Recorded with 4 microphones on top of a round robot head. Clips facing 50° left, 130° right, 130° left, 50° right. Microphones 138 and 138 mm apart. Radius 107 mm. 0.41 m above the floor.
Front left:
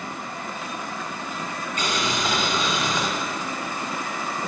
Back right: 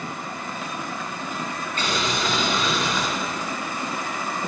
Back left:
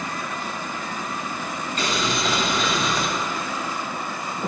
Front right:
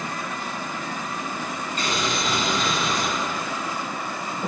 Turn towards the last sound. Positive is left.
turn(degrees=125)